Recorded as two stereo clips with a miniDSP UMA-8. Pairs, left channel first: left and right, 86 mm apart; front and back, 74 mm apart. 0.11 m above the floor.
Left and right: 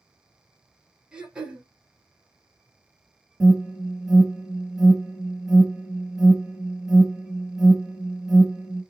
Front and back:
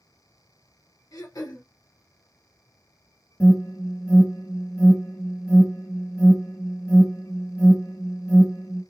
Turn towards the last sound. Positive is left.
turn(degrees=-15)